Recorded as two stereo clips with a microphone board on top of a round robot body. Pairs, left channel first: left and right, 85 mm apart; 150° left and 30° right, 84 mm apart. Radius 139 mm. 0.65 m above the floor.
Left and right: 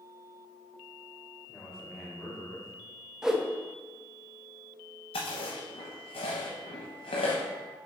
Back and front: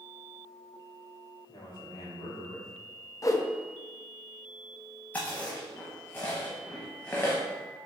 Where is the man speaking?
175° right, 2 m; by 2.7 s 160° left, 1.5 m.